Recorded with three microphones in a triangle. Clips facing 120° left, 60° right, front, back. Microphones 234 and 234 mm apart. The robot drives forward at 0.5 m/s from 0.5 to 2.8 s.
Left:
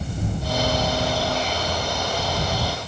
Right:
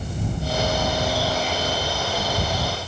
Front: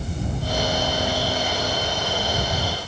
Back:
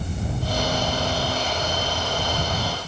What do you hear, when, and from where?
Only background noise.